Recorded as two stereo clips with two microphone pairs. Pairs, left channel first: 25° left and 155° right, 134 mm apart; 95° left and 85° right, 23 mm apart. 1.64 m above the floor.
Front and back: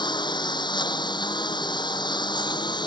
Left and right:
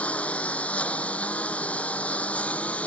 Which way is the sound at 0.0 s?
80° left.